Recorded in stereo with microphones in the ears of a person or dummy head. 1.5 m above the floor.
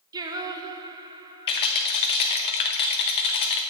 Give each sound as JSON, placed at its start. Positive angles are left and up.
{"t": 0.1, "sound": "singing", "side_deg": -25, "distance_m": 0.8}
{"t": 1.5, "sound": "a rattle", "side_deg": 35, "distance_m": 0.8}